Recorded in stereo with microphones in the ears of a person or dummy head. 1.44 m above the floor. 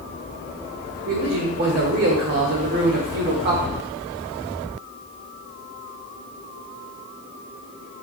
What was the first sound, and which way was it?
A man speaking, 50° right (ahead or behind).